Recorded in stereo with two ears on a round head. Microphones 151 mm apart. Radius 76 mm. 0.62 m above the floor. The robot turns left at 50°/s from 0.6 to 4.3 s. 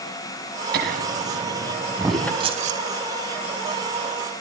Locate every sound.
0.7 s laughter: 65° right (ahead or behind), 6 m; by 2.3 s 10° left (ahead or behind), 6 m
2.4 s keys jangling: 30° right (ahead or behind), 2.5 m; by 2.8 s 50° right (ahead or behind), 2.5 m